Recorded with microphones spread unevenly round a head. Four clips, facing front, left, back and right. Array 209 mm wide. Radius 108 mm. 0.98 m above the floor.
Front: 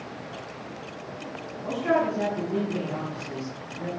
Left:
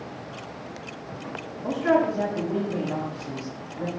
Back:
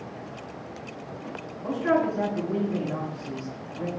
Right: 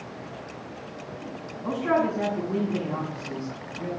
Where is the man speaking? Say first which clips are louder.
Left 2 dB, even; 100° left, 7 m.